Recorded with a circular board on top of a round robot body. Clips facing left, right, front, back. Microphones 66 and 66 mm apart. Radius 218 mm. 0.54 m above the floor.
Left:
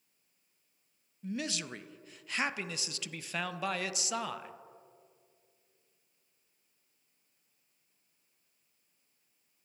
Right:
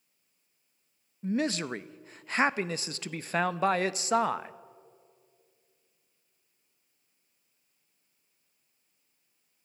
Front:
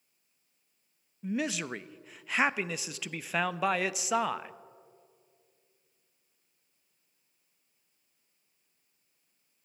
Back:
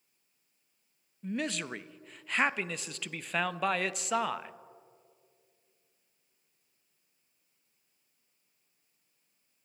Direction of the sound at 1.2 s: 85° right.